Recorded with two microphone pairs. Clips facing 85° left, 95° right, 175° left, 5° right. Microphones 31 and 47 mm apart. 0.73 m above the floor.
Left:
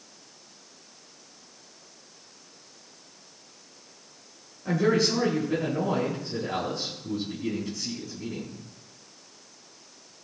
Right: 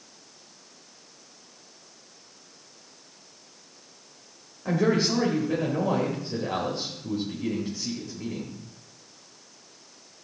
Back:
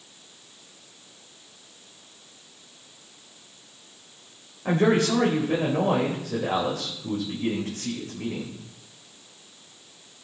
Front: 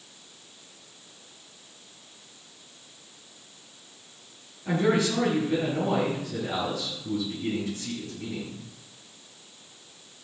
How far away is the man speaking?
About 3.5 m.